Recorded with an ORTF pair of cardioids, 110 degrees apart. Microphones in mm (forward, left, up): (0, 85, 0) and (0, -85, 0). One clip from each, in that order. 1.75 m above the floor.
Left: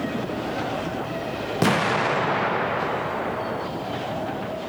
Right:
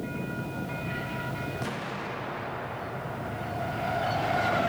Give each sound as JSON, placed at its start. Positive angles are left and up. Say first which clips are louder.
{"t": 1.6, "sound": "an explosion", "louder": "left 13 dB", "azimuth_deg": 70, "distance_m": 0.6}